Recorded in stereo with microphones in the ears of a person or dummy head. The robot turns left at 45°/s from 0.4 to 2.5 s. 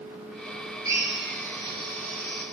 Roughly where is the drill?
Behind.